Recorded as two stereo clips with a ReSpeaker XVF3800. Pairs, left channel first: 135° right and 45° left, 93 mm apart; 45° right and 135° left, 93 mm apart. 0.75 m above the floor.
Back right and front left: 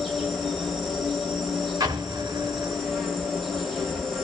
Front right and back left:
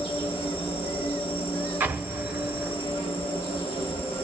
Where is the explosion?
75° left, 0.8 m.